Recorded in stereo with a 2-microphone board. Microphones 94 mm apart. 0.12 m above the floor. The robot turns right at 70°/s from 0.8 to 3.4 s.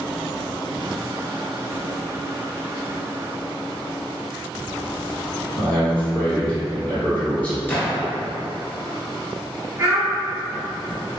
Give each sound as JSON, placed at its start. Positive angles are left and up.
{"t": 5.6, "sound": "a man speaking", "side_deg": 15, "distance_m": 1.9}
{"t": 7.7, "sound": "a gunshot", "side_deg": 20, "distance_m": 0.8}
{"t": 9.8, "sound": "a child speaking", "side_deg": -35, "distance_m": 1.6}